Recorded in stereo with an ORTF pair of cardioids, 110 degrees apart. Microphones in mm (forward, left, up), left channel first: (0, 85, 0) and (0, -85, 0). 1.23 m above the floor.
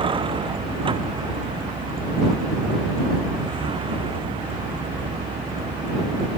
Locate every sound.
0.0 s a vehicle: 30° right